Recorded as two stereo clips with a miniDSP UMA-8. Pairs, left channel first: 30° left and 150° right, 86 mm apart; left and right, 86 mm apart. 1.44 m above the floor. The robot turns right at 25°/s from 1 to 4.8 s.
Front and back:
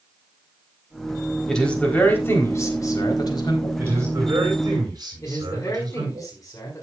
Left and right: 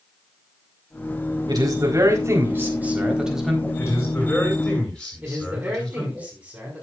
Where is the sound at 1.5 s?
55° right, 4 m; by 3.7 s straight ahead, 4 m.